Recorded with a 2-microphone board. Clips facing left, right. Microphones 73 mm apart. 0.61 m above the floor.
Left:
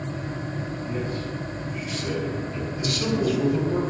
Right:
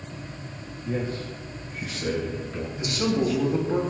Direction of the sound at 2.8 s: 30° right (ahead or behind).